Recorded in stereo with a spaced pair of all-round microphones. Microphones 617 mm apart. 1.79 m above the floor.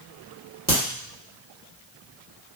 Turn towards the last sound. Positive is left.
turn(degrees=-15)  # may be behind; listen again after turning